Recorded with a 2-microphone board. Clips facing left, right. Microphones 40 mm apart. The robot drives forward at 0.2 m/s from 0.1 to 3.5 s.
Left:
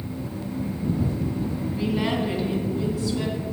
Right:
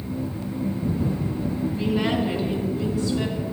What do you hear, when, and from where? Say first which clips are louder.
1.7 s a woman speaking: right 1 dB; 5° left (ahead or behind), 3 m